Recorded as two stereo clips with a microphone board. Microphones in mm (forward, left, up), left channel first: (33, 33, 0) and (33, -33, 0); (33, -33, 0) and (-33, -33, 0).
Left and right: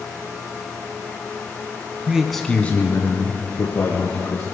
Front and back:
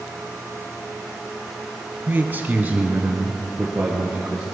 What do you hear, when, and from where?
2.1 s a man speaking: 145° right, 1.1 m; by 4.5 s 105° left, 3 m